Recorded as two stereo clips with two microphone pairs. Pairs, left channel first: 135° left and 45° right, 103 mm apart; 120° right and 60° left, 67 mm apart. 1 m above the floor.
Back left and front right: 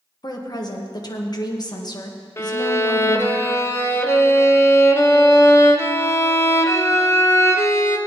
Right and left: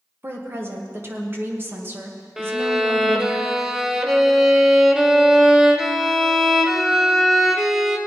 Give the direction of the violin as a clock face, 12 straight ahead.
7 o'clock.